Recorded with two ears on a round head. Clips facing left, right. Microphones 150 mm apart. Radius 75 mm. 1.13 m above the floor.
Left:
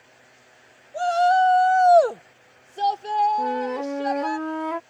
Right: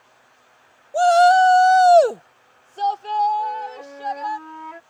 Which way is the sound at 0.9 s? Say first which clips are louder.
Right 6 dB; 65° right (ahead or behind).